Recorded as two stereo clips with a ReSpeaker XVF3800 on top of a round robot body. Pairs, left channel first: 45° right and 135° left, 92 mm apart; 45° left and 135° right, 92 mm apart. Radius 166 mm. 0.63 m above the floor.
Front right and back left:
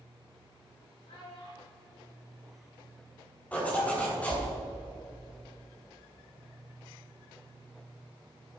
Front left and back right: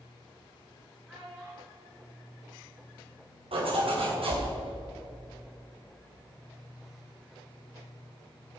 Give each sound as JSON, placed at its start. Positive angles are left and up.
{"t": 1.1, "sound": "a child speaking", "azimuth_deg": -55, "distance_m": 3.0}
{"t": 3.5, "sound": "a zipper", "azimuth_deg": -120, "distance_m": 3.5}